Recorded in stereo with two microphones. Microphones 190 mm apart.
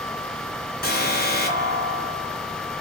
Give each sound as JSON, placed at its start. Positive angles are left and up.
{"t": 0.8, "sound": "an alarm", "side_deg": 55, "distance_m": 3.5}